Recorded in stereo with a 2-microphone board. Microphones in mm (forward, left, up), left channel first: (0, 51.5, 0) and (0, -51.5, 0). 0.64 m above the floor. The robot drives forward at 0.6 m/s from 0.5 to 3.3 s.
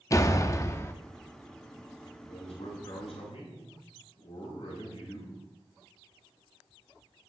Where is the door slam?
30° left (ahead or behind), 0.6 m; by 0.9 s 25° left (ahead or behind), 0.8 m.